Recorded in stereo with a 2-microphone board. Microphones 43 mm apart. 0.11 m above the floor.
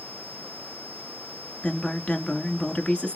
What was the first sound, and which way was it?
A woman speaking, 25° left (ahead or behind).